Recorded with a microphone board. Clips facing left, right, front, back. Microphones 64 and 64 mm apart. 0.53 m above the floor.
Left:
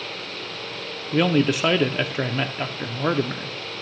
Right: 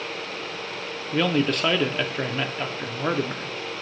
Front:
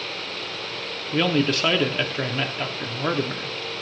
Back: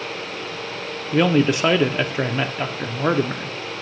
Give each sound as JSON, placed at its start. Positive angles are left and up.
{"t": 1.1, "sound": "a man speaking", "azimuth_deg": 155, "distance_m": 0.7}